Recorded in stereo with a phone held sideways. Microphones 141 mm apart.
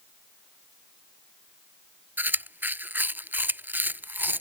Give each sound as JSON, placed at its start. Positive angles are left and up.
{"t": 2.2, "sound": "chewing", "side_deg": -10}